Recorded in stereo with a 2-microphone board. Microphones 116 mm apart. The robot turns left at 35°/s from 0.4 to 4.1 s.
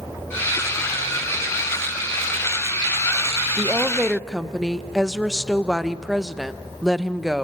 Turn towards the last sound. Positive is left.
turn(degrees=0)  # may be behind; listen again after turning